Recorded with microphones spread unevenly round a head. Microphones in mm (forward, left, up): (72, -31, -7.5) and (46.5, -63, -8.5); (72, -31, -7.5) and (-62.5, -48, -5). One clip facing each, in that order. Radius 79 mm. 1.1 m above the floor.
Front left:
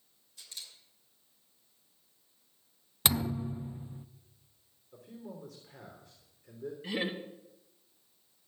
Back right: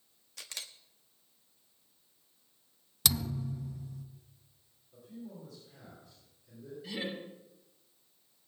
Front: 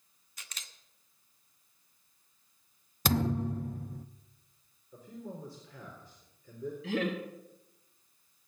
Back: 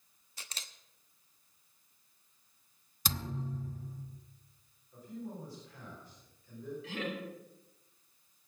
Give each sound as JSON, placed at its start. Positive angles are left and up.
{"t": 0.4, "sound": "a camera shutter", "azimuth_deg": -115, "distance_m": 1.1}
{"t": 3.0, "sound": "a thud", "azimuth_deg": -5, "distance_m": 0.5}
{"t": 4.9, "sound": "a man speaking", "azimuth_deg": 25, "distance_m": 3.5}
{"t": 6.8, "sound": "laughter", "azimuth_deg": 5, "distance_m": 2.0}